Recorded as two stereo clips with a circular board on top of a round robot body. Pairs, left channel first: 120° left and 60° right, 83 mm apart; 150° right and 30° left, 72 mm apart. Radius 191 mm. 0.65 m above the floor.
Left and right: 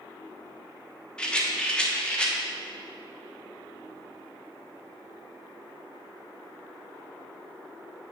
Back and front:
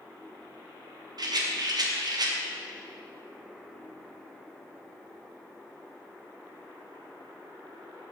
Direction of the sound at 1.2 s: 40° left.